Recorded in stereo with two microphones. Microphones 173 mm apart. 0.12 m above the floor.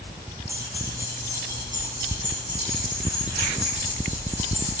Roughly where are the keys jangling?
Centre.